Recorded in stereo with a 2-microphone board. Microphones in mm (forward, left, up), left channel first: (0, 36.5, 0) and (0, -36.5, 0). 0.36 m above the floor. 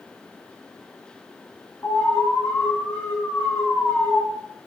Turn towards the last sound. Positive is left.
turn(degrees=30)  # may be behind; listen again after turning